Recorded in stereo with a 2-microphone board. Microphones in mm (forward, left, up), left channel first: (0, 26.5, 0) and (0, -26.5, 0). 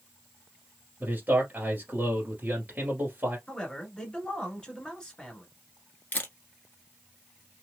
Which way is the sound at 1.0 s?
30° right (ahead or behind).